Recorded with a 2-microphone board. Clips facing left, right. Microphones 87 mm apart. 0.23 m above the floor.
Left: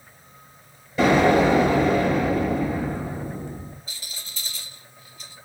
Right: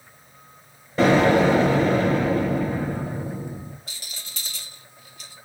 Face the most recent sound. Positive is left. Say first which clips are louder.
# even
turn(degrees=-75)  # may be behind; listen again after turning